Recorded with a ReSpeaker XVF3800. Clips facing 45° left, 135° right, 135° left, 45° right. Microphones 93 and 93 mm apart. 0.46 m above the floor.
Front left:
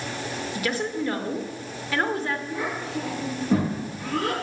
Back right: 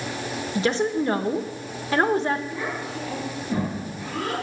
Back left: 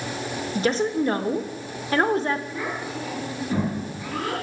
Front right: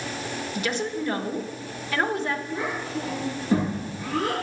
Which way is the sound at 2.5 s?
20° left.